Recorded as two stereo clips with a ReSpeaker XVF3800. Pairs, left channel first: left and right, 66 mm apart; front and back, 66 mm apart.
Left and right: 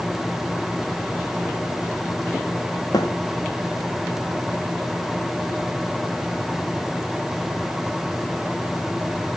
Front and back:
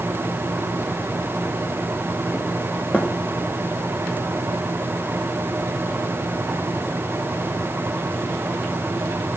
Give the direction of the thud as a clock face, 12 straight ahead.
10 o'clock.